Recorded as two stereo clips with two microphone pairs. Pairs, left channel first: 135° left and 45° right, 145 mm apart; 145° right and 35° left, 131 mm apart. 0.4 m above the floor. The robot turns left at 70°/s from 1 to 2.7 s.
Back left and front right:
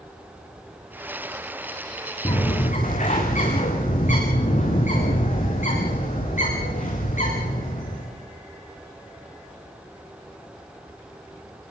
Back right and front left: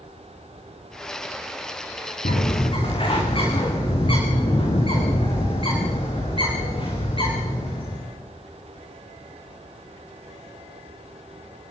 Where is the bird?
160° right, 7.5 m; by 8.1 s 170° left, 7.5 m.